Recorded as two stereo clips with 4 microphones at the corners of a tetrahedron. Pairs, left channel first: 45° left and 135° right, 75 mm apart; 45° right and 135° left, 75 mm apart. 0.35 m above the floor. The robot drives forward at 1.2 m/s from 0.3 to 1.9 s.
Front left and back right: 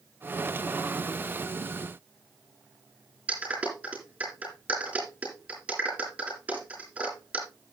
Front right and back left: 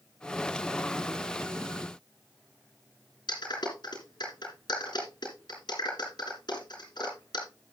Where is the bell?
I don't hear a bell.